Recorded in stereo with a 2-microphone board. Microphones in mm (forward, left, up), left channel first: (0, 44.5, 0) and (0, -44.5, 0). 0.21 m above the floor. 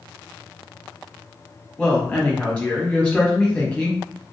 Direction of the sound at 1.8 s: 15° left (ahead or behind).